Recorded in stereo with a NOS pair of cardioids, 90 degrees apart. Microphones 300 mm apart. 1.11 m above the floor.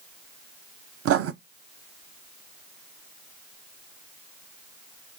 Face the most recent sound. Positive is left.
turn(degrees=-50)